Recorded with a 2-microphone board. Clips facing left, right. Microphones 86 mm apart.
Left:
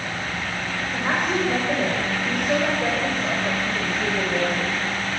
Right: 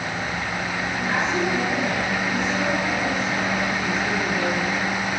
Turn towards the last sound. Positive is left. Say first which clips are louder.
# left 1 dB
turn(degrees=60)  # may be behind; listen again after turning